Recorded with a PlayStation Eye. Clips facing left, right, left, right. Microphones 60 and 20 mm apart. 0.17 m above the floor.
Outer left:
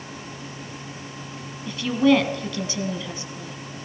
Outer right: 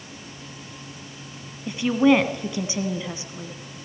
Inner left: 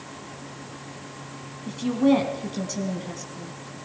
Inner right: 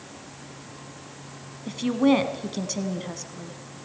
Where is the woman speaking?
20° right (ahead or behind), 1.4 m.